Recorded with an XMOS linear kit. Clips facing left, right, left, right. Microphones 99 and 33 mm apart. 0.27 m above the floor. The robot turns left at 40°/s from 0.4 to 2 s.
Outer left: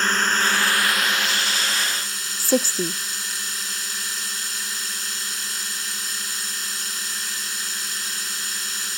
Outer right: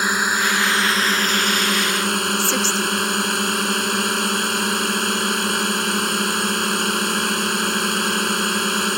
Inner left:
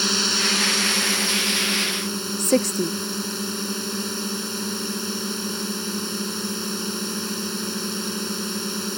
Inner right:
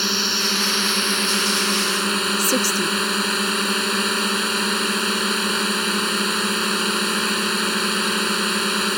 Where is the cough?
I don't hear a cough.